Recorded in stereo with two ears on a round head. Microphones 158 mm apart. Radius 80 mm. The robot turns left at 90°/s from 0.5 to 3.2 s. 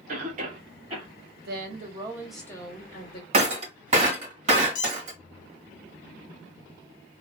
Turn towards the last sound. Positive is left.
turn(degrees=25)  # may be behind; listen again after turning